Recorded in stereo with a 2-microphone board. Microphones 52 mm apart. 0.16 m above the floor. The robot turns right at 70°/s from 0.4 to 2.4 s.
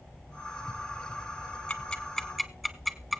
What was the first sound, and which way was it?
Ticking, 20° left (ahead or behind).